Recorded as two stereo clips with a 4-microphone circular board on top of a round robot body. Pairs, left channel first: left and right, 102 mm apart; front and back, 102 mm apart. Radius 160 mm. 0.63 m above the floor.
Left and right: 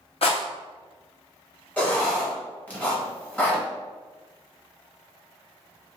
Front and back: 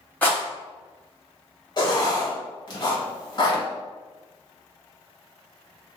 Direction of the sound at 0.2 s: 75° left.